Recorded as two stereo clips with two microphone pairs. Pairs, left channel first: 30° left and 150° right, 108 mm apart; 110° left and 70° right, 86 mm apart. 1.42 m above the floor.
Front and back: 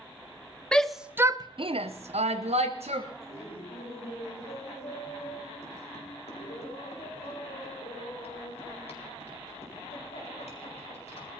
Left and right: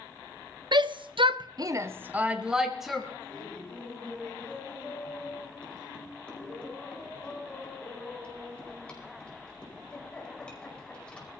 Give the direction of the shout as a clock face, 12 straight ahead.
2 o'clock.